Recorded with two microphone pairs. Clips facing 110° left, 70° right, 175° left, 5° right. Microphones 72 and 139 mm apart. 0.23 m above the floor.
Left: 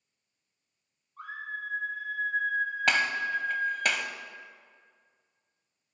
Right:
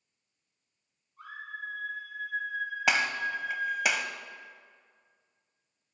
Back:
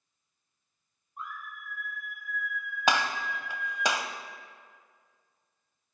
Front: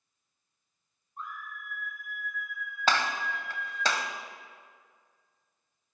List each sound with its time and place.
1.2 s a scream: 95° left, 6 m; by 3.9 s 70° left, 8 m
2.9 s a gunshot: 140° right, 0.8 m